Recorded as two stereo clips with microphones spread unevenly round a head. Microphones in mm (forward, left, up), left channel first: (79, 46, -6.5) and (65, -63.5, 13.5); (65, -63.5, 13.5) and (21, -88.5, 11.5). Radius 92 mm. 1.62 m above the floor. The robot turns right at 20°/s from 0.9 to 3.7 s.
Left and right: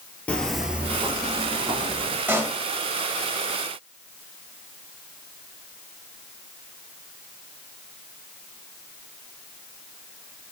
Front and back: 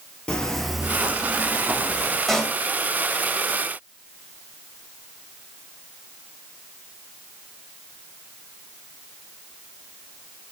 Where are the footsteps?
5° right, 1.8 m; by 2.2 s 85° right, 3 m.